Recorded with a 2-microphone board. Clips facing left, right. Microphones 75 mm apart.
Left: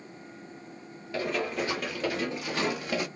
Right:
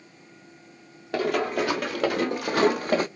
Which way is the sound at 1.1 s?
70° right (ahead or behind).